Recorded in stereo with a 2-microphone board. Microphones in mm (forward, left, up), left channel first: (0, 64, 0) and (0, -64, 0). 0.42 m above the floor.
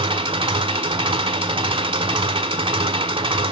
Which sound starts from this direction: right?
An engine running, at 0.0 s.